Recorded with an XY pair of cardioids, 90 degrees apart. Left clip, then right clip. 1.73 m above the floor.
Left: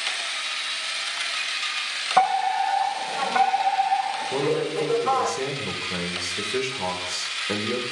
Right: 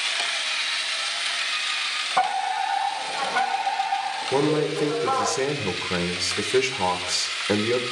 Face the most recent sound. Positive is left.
turn(degrees=-35)